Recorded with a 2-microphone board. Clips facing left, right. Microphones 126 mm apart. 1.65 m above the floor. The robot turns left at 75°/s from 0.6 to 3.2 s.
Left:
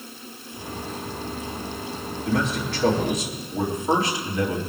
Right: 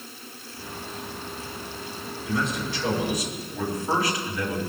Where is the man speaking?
100° left, 3.5 m; by 4.6 s 25° left, 3.5 m.